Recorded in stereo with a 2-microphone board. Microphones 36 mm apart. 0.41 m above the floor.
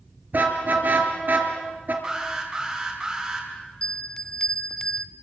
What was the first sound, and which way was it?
A car horn, 55° right (ahead or behind).